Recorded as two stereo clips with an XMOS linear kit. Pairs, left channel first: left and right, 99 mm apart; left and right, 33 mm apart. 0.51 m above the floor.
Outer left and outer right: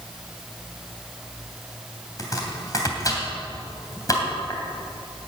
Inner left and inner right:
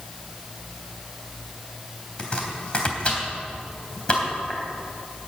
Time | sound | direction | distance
2.2 | chopping | 35° left (ahead or behind) | 3 m